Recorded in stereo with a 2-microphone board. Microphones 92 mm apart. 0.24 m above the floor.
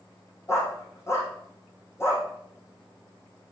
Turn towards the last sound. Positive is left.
turn(degrees=30)  # may be behind; listen again after turning